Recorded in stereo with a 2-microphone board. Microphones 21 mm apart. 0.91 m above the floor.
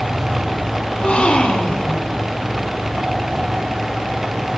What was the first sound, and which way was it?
A gasp, 70° left (ahead or behind).